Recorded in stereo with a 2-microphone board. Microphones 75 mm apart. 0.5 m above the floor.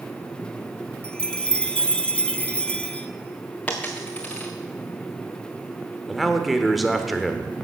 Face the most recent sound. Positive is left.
turn(degrees=0)  # may be behind; listen again after turning